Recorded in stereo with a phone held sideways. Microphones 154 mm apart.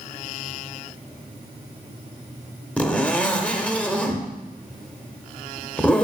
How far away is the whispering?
No whispering in this recording.